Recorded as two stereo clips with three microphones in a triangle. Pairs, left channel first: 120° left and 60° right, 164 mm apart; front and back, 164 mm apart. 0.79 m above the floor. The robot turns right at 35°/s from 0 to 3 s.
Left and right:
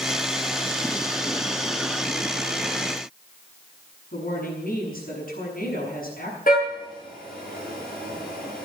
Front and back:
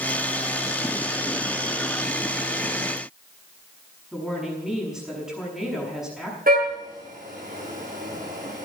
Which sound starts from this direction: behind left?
A car horn, at 6.5 s.